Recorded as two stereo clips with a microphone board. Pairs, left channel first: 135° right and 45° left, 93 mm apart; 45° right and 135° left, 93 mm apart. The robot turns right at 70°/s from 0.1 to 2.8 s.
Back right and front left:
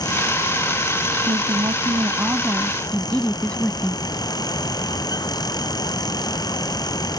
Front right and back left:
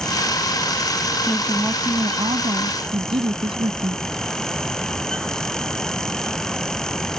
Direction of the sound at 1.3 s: 40° left.